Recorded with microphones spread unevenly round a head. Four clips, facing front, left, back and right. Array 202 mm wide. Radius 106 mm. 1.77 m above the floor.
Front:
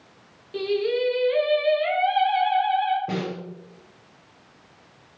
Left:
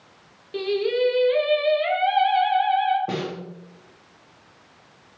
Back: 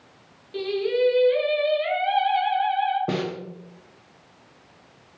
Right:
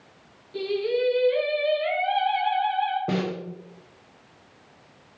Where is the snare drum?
165° right, 0.5 m.